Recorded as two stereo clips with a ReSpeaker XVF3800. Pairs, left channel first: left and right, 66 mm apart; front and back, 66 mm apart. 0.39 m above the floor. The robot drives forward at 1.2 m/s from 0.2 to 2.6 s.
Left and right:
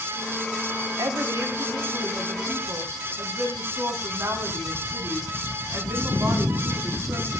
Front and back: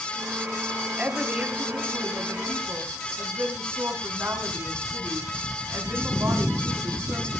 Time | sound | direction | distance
1.0 | a woman speaking | 105° right | 3.5 m